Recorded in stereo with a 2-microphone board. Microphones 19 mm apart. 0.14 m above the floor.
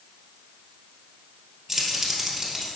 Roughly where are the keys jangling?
Centre.